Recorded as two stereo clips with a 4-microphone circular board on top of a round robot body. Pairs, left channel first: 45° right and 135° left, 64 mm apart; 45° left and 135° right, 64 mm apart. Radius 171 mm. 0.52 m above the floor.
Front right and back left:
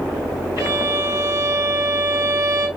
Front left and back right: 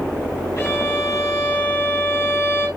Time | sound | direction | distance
0.6 | a violin | 95° left | 1.9 m